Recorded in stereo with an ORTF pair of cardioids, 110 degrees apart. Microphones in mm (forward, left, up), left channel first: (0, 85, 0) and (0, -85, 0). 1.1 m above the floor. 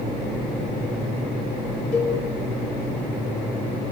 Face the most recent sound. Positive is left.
turn(degrees=45)